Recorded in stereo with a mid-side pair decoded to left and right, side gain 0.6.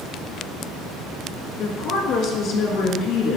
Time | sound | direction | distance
1.6 | a woman speaking | 65° left | 1.7 m